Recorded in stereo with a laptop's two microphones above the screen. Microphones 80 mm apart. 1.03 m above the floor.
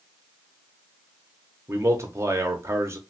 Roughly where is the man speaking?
Right.